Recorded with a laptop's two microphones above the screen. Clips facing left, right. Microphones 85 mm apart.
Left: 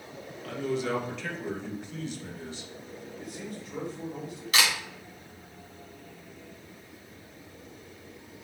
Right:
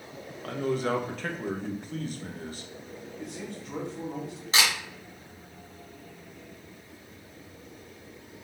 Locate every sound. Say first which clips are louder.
0.4 s a man speaking: right 2 dB; 45° right (ahead or behind), 0.9 m
3.2 s a man speaking: right 2 dB; 70° right (ahead or behind), 2 m
4.5 s a camera shutter: even; 25° right (ahead or behind), 1.3 m